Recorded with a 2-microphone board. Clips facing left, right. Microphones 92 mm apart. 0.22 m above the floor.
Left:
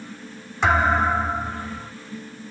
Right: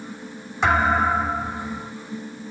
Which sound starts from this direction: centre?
A thud, at 0.6 s.